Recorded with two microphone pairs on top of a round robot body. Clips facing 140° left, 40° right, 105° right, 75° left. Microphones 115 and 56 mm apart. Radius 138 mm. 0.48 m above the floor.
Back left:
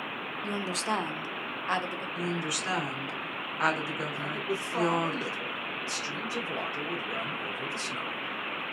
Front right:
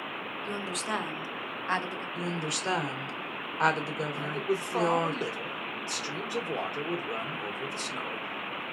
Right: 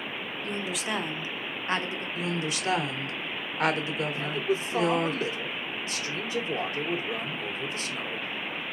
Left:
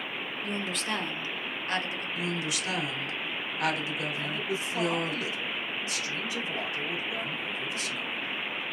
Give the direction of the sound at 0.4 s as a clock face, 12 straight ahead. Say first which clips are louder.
Back left 3 dB, right 1 dB; 6 o'clock.